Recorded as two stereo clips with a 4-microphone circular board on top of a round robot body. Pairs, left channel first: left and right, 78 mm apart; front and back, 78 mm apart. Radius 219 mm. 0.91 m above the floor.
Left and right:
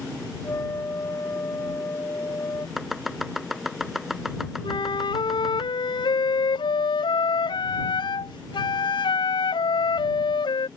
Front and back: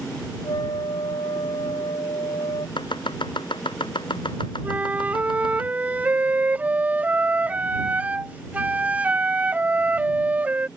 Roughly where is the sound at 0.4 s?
Ahead left.